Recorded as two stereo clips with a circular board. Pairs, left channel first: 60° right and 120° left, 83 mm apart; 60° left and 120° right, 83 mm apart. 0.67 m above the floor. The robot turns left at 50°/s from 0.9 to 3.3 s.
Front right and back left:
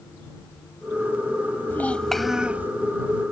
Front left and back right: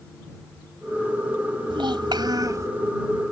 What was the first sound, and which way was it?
A child speaking, 125° right.